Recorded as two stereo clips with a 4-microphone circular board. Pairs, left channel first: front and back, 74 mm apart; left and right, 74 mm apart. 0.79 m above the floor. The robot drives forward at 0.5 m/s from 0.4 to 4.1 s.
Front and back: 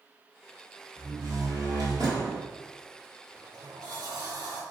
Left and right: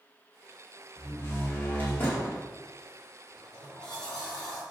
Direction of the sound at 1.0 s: 140° left.